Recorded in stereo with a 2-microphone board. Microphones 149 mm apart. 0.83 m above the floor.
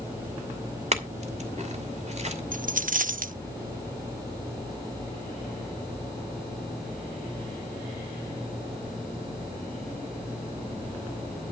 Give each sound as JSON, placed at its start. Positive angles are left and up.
{"t": 0.9, "sound": "a clink", "side_deg": -50, "distance_m": 2.5}
{"t": 2.5, "sound": "a dropped coin", "side_deg": -65, "distance_m": 0.6}